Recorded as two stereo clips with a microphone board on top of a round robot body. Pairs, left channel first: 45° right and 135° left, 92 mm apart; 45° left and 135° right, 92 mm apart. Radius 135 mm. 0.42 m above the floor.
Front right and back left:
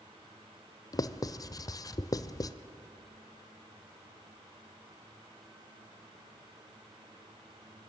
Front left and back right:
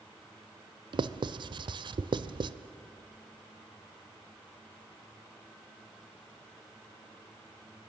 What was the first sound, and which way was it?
Writing, 95° right.